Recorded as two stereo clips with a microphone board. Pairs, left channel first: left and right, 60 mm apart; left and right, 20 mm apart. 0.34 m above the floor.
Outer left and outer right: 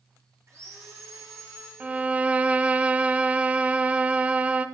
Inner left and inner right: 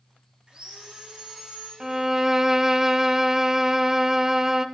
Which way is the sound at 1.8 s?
20° right (ahead or behind).